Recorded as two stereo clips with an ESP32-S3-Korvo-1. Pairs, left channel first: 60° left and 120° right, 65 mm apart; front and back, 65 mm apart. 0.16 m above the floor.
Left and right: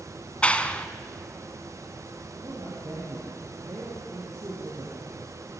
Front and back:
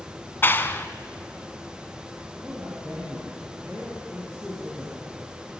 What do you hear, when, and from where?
0.4 s a clap: 5° left, 1.0 m
2.4 s a man speaking: 85° right, 6 m